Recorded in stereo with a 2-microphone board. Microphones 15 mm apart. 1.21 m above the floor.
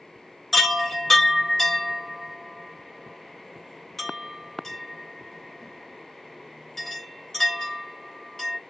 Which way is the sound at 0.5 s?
30° left (ahead or behind).